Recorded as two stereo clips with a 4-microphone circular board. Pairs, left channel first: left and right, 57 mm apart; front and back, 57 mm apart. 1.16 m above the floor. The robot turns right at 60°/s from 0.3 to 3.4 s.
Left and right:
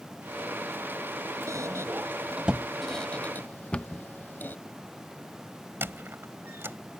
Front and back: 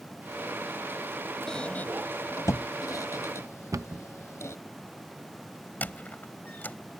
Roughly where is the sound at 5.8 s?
Ahead right.